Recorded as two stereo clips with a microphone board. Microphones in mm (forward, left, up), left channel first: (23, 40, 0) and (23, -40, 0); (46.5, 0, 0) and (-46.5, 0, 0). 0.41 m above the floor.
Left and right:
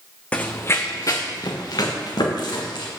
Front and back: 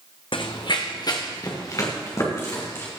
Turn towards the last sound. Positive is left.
turn(degrees=60)